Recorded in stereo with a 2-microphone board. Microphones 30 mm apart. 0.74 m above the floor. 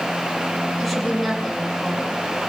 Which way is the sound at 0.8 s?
5° left (ahead or behind).